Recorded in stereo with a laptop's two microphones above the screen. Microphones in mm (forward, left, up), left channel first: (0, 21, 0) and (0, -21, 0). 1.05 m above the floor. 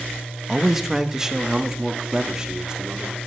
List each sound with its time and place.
0.5 s a man speaking: 10° right (ahead or behind), 1.0 m; by 3.2 s 25° right (ahead or behind), 2.5 m